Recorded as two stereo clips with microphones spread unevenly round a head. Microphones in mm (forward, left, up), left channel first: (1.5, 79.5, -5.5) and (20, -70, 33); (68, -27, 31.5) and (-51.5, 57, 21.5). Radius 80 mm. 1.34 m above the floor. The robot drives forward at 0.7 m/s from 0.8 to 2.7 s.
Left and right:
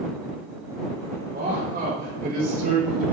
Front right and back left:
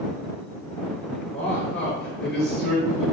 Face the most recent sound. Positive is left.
turn(degrees=-125)